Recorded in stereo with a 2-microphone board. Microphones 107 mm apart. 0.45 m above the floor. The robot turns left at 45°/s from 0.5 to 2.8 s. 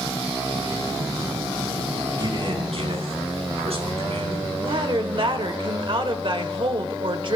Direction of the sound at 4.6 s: 50° right (ahead or behind).